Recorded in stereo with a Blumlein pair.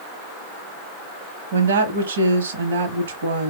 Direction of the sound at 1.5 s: 60° right.